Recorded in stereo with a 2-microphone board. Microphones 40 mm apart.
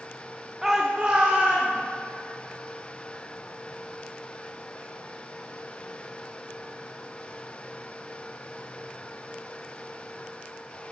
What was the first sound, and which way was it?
A shout, 5° right (ahead or behind).